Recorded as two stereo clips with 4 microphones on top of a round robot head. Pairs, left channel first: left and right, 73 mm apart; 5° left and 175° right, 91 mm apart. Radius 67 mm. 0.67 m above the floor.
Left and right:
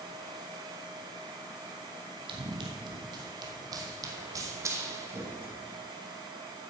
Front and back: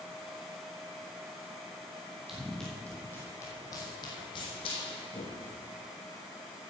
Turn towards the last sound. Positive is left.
turn(degrees=-30)